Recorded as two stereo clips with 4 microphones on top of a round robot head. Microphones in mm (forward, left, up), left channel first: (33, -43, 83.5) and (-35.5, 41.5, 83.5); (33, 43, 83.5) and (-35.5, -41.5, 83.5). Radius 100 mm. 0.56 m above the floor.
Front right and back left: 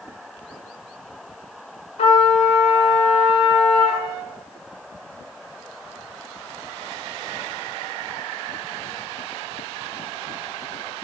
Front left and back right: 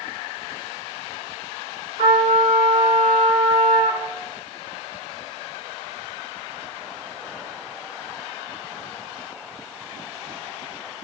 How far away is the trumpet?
About 4.5 m.